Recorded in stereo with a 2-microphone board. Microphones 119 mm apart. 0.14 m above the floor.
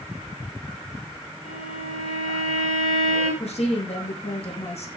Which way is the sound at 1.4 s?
75° left (ahead or behind).